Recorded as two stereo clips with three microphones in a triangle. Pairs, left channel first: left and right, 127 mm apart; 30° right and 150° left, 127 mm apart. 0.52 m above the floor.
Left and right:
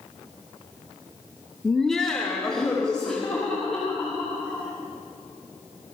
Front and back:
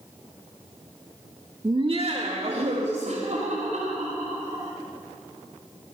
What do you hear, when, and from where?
1.6 s laughter: 175° left, 0.8 m